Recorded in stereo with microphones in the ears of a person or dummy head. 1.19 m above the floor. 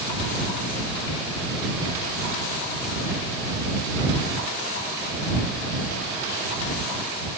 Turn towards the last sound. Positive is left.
No sound to turn to.